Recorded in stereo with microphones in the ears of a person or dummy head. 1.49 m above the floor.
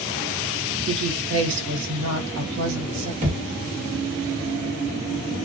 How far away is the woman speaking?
About 1.3 m.